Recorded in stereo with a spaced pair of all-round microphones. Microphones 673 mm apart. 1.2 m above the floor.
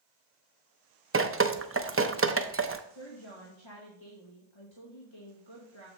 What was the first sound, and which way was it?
Dripping, 20° right (ahead or behind).